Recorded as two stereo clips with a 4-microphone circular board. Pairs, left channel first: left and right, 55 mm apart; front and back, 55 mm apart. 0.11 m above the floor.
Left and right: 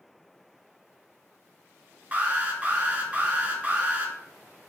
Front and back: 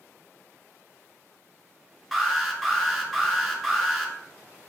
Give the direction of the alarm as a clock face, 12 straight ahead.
3 o'clock.